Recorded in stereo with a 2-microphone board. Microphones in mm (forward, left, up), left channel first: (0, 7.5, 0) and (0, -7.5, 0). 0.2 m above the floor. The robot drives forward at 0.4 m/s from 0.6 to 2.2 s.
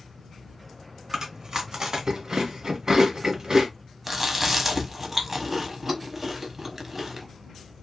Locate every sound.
1.1 s chewing: 40° right (ahead or behind), 1.3 m; by 3.7 s 45° right (ahead or behind), 1.1 m
4.1 s chewing: 15° right (ahead or behind), 0.7 m